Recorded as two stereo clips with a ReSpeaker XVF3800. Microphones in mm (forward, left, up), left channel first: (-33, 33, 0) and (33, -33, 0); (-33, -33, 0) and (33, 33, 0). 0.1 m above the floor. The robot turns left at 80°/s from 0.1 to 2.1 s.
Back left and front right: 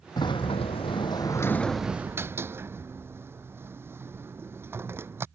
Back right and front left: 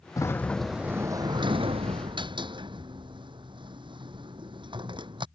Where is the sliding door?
175° left; by 5.3 s 20° left.